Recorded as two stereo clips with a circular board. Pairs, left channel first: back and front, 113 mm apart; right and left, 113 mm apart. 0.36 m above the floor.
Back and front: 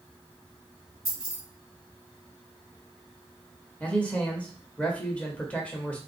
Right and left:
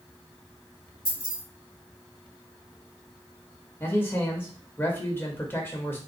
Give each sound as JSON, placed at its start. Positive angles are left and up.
{"t": 1.1, "sound": "keys jangling", "azimuth_deg": -130, "distance_m": 2.5}
{"t": 3.8, "sound": "a man speaking", "azimuth_deg": -120, "distance_m": 0.9}